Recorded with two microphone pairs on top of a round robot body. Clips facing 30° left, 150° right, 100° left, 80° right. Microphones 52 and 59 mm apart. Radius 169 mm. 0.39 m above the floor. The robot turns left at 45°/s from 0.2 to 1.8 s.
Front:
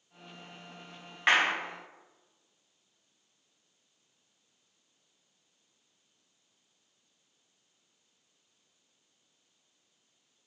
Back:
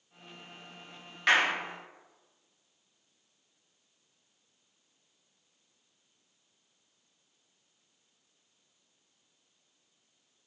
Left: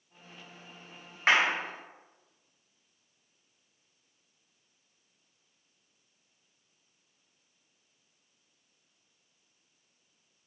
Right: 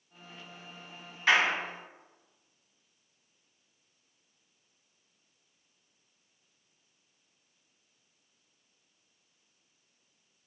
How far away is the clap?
About 1.3 m.